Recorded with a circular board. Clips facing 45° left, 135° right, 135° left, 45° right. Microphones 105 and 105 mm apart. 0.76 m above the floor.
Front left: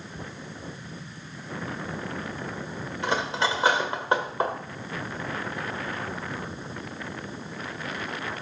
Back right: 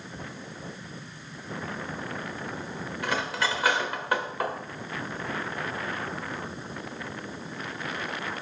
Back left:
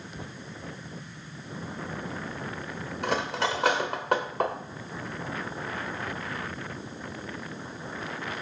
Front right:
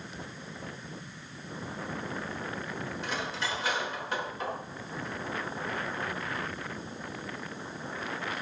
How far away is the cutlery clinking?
About 1.5 m.